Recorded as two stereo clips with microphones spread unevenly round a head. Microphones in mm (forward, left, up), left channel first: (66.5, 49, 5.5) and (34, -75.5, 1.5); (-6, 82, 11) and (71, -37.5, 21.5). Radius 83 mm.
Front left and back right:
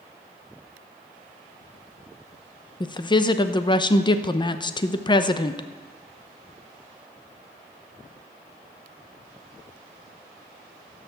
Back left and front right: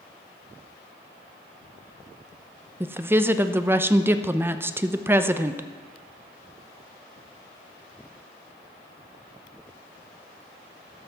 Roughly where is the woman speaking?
Ahead.